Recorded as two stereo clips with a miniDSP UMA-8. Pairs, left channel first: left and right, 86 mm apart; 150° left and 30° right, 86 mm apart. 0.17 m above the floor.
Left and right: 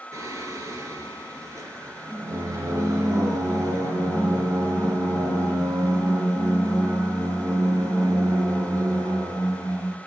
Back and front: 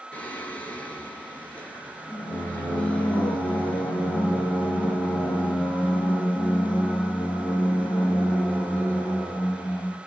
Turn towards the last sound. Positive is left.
turn(degrees=-140)